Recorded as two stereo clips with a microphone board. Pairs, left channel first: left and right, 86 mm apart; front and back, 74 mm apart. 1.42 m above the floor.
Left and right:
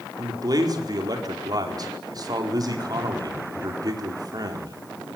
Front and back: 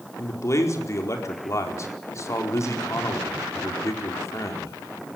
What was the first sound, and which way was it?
A man speaking, 50° right.